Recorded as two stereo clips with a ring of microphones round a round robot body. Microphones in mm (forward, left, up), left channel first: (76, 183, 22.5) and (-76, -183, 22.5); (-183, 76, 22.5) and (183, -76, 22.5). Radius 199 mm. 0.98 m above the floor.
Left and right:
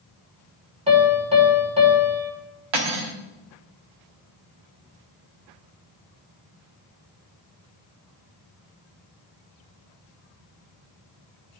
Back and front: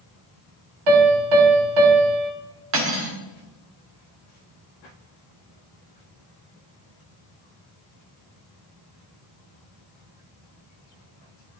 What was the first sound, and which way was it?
A piano, 35° right.